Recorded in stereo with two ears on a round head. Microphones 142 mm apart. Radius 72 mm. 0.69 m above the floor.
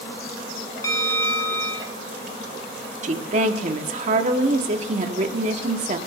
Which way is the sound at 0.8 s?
20° left (ahead or behind).